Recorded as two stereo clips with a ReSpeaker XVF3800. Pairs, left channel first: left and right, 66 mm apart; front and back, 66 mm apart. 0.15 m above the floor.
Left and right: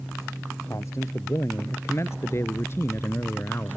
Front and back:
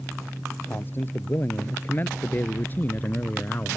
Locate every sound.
0.7 s a man speaking: 55° left; by 3.8 s 50° left